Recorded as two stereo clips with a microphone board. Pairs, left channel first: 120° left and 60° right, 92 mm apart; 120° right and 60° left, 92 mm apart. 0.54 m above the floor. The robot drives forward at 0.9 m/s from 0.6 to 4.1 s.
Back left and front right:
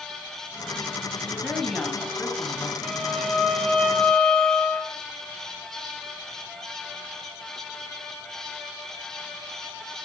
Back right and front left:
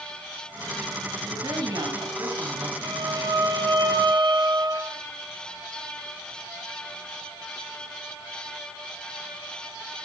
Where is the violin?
25° left, 3.5 m; by 4.9 s 40° left, 2.5 m.